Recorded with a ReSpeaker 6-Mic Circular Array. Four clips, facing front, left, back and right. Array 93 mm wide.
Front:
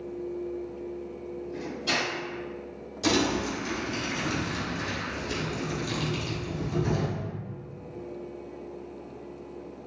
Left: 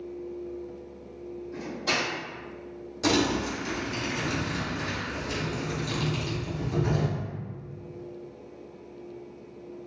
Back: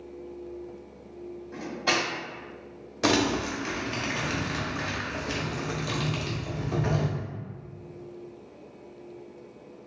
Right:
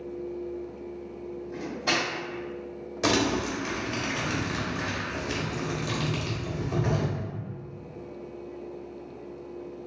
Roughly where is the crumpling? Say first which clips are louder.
Even, back 1 dB; behind right.